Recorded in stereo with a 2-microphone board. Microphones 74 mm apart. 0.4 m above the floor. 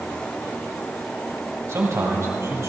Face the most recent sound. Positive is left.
turn(degrees=-40)  # may be behind; listen again after turning